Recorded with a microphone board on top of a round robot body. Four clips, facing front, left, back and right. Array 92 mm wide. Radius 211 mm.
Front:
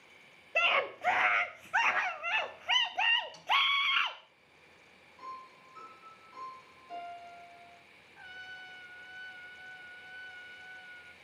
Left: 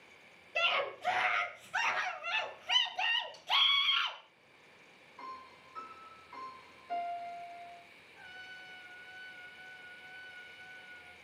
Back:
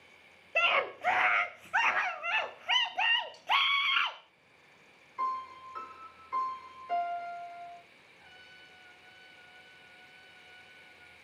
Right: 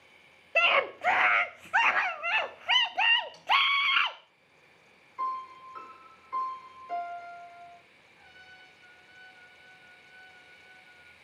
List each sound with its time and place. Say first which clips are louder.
0.6 s a scream: right 7 dB, back 1 dB; 95° right, 1.4 m
3.3 s a snare drum: right 4 dB, front 1 dB; 50° right, 6.5 m
5.2 s a piano: right 14 dB, back 12 dB; 145° right, 3.5 m
8.2 s a trumpet: left 4 dB, front 10 dB; 20° left, 1.6 m